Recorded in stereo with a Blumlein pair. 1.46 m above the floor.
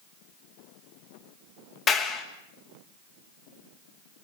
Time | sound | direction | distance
1.9 | a clap | 25° left | 2.5 m